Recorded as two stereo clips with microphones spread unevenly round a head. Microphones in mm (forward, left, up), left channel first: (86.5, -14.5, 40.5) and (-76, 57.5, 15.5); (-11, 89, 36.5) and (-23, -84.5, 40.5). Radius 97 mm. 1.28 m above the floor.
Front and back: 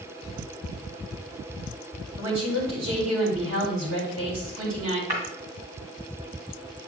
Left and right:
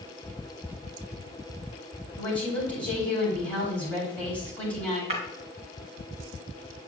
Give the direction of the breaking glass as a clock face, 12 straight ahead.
5 o'clock.